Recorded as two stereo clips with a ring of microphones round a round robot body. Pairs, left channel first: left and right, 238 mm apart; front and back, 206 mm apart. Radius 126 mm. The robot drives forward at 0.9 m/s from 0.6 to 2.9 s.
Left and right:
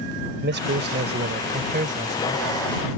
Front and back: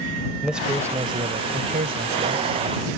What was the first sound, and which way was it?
A man speaking, 95° right.